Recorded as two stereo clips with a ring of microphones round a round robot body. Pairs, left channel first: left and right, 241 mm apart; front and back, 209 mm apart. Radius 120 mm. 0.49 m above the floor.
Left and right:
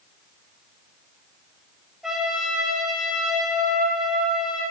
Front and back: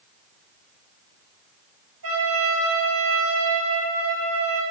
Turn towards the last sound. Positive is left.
turn(degrees=180)